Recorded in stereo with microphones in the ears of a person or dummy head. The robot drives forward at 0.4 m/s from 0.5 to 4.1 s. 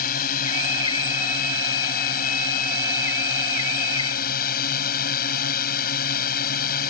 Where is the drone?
55° left (ahead or behind).